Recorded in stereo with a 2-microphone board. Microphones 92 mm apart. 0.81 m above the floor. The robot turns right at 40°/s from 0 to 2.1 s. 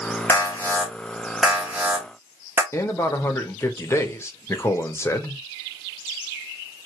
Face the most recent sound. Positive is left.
turn(degrees=30)  # may be behind; listen again after turning